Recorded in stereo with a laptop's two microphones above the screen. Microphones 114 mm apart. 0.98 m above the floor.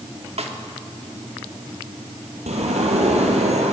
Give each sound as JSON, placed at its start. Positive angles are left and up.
{"t": 0.4, "sound": "a snare drum", "side_deg": -65, "distance_m": 2.0}
{"t": 2.5, "sound": "a sliding door", "side_deg": -75, "distance_m": 4.0}